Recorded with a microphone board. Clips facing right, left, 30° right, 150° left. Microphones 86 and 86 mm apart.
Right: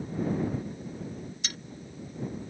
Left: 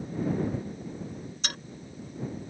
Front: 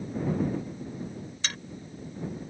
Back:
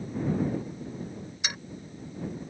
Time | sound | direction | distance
1.4 | a dropped coin | 75° left | ?